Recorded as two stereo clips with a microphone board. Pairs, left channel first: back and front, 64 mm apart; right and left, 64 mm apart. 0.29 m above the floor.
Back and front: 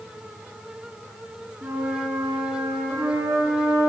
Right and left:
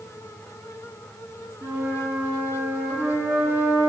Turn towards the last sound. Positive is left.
turn(degrees=40)